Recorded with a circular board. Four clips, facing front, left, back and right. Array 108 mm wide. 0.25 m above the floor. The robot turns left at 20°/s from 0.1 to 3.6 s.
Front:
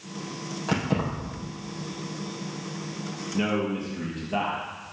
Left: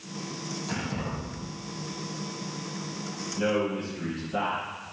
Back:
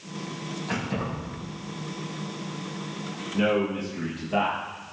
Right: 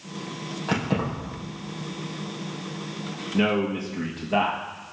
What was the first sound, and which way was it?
Keys jangling, 50° right.